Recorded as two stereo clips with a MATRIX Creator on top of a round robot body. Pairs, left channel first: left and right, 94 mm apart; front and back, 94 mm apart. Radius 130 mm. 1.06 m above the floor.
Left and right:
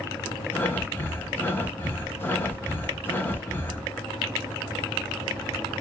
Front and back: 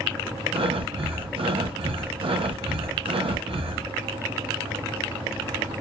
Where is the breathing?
160° left, 0.7 m.